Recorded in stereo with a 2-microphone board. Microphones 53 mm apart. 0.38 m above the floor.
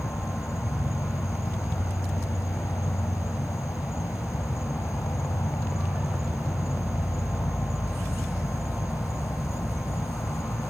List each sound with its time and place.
0.0 s an insect: 70° left (ahead or behind), 0.7 m